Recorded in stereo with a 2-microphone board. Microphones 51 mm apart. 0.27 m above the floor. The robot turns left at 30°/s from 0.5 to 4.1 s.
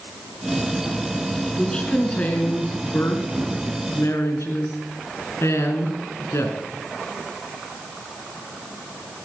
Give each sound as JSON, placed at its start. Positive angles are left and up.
{"t": 1.6, "sound": "a woman speaking", "azimuth_deg": 165, "distance_m": 2.5}